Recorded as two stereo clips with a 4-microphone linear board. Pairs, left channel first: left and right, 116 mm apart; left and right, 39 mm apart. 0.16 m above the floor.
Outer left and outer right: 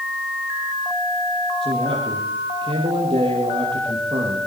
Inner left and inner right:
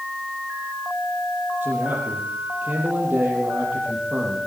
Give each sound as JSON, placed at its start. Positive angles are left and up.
{"t": 1.6, "sound": "a man speaking", "side_deg": -50, "distance_m": 5.5}